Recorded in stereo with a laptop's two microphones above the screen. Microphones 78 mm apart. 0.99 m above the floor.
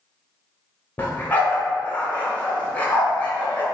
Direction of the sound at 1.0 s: 20° left (ahead or behind).